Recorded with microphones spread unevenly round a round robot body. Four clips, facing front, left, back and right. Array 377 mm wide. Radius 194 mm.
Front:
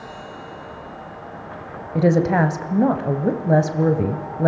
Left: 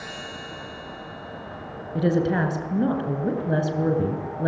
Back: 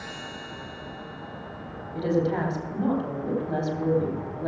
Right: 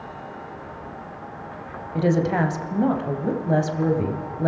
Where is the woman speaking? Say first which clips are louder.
Right 1 dB, front 8 dB; 5° left, 4 m.